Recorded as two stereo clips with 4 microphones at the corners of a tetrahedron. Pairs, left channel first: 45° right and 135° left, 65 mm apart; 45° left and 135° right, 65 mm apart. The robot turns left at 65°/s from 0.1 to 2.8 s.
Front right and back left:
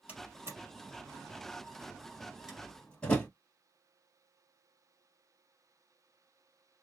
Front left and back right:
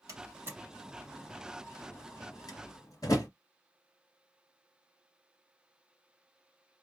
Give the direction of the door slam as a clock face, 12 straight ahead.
5 o'clock.